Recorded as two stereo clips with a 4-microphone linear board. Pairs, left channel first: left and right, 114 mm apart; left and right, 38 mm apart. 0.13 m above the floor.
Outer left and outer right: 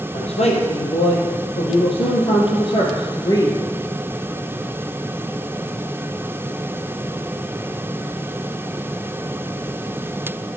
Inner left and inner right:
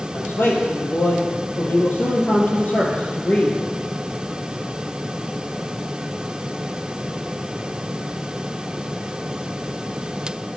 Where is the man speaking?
70° left (ahead or behind), 3.5 m; by 3.6 s 35° left (ahead or behind), 2.5 m.